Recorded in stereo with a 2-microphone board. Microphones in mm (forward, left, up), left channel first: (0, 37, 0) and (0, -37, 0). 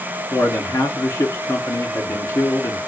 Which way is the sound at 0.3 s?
40° left (ahead or behind).